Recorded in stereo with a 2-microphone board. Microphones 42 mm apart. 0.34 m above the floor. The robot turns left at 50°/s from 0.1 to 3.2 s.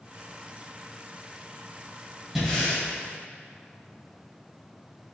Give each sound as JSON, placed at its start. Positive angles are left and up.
{"t": 2.4, "sound": "breathing", "side_deg": 0, "distance_m": 2.5}